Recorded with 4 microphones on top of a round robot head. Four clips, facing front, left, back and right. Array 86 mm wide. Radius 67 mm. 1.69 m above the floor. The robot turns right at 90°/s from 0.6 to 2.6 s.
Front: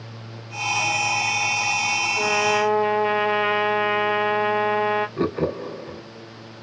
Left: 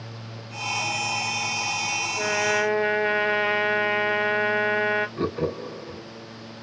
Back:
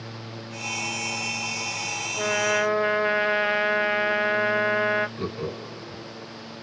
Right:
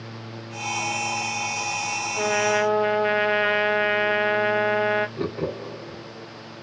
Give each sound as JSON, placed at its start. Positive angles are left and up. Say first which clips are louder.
{"t": 2.2, "sound": "a trumpet", "louder": "right 2 dB, front 2 dB", "azimuth_deg": -90, "distance_m": 1.0}
{"t": 5.2, "sound": "laughter", "louder": "left 1 dB, front 8 dB", "azimuth_deg": -5, "distance_m": 0.8}